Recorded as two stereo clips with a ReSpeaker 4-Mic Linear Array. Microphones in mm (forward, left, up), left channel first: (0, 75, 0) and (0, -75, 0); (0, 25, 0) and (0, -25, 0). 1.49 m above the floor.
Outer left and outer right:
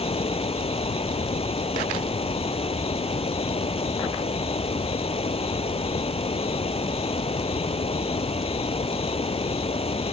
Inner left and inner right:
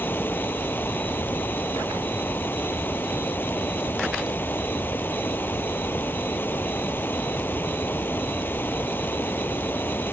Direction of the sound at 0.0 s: 40° left (ahead or behind).